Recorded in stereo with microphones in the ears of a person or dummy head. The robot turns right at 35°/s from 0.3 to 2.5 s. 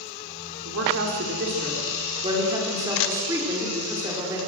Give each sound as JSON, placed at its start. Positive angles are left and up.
{"t": 0.7, "sound": "a woman speaking", "azimuth_deg": -80, "distance_m": 4.5}